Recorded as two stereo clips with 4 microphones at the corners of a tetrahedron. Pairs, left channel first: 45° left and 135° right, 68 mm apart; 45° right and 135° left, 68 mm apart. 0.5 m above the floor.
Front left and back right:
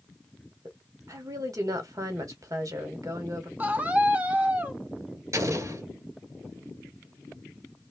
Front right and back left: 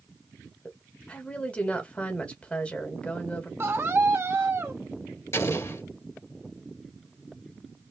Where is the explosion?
90° right, 1.4 m.